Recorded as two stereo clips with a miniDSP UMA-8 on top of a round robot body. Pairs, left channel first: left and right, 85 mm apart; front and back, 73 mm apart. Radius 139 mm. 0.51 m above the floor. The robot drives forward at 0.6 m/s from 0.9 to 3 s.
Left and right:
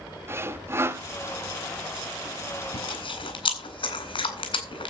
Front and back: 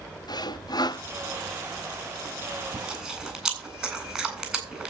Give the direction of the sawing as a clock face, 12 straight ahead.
1 o'clock.